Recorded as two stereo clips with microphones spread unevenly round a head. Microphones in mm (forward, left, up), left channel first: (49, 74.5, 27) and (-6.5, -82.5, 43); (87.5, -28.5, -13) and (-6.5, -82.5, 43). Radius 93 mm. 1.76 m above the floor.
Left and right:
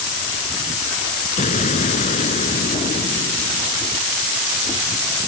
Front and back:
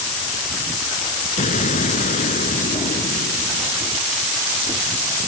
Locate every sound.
1.4 s an explosion: 20° left